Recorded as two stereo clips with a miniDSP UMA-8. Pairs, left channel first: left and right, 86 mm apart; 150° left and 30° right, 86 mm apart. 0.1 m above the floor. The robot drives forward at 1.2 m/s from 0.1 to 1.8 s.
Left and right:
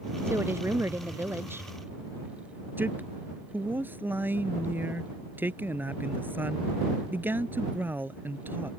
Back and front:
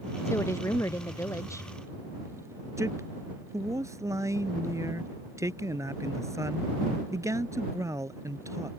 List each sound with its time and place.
0.2 s a woman speaking: 150° right; by 1.7 s 155° right
2.8 s a man speaking: 40° right